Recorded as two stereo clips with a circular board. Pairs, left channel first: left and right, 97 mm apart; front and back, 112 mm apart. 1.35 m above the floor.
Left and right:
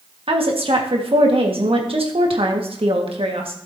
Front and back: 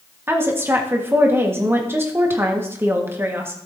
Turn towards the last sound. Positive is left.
turn(degrees=-110)